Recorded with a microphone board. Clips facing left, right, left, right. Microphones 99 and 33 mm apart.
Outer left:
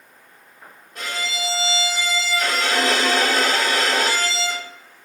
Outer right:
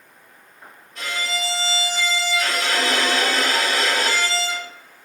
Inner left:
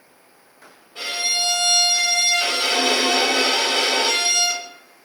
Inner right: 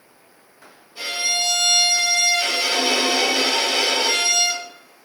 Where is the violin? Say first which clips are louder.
Outer right 1 dB, even; 55° left (ahead or behind), 1.3 m.